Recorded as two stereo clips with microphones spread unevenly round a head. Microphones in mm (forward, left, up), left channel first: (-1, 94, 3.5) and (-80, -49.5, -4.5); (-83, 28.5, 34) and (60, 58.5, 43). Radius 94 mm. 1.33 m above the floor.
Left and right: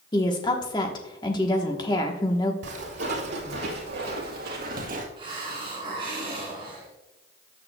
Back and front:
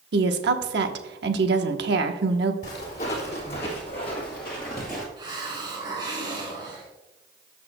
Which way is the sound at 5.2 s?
55° right.